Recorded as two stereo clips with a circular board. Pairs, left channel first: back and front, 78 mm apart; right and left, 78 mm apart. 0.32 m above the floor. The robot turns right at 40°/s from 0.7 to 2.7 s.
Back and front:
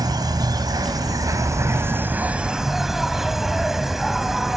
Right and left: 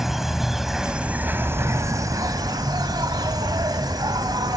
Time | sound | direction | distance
0.0 | an insect | 5° left | 1.1 m